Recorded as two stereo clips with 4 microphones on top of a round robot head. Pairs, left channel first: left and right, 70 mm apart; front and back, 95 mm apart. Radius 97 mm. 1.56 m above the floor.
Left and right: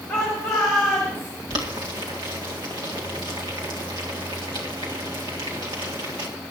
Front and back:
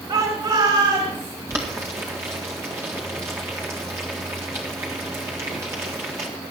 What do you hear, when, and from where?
0.1 s a shout: straight behind, 3 m
1.5 s boiling: 115° right, 1.8 m